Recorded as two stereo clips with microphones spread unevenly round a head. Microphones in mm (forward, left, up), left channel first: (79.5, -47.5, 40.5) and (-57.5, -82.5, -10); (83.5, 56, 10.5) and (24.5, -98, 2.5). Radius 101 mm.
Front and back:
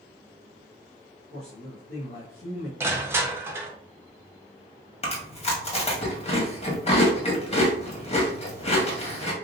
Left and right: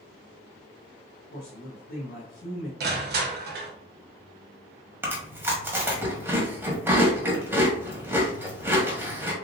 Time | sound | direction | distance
1.3 | a man speaking | 40° left | 1.2 m
2.8 | crushing | 105° right | 0.9 m
5.0 | chewing | 35° right | 1.4 m